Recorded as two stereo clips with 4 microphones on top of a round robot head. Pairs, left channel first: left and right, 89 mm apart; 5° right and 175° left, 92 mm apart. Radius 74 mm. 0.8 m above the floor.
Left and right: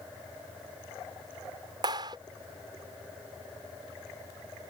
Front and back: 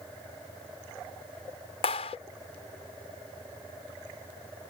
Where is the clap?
40° right.